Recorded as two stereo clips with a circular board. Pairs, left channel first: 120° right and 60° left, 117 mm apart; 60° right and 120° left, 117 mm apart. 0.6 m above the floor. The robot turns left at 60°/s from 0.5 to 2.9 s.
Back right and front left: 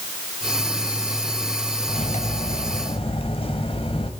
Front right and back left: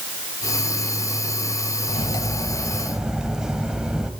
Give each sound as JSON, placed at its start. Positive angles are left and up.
{"t": 1.9, "sound": "cutlery clinking", "azimuth_deg": -95, "distance_m": 2.0}